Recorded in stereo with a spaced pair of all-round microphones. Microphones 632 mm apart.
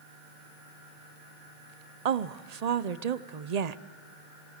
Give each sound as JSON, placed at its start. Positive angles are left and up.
{"t": 2.0, "sound": "a woman speaking", "side_deg": -80, "distance_m": 0.8}